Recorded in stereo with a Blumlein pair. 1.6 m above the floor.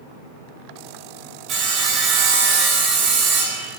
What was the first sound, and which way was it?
Sawing, 30° right.